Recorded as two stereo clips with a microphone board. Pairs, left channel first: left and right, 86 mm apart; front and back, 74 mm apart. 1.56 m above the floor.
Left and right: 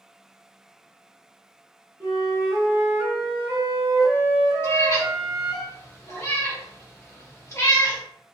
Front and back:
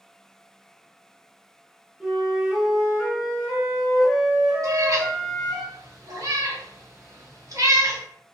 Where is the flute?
115° right, 1.2 m.